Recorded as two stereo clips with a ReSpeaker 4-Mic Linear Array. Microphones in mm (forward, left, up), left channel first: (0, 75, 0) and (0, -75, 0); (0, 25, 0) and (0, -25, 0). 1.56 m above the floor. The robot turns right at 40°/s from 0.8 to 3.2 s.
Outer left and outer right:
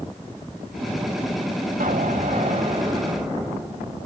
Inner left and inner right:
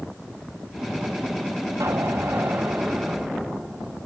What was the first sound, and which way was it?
An explosion, 70° right.